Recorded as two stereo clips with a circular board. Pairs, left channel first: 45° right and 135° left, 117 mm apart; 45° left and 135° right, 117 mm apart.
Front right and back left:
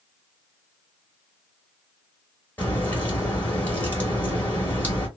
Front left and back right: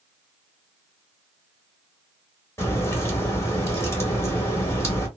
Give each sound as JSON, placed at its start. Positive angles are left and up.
{"t": 2.6, "sound": "a crack", "azimuth_deg": 10, "distance_m": 1.2}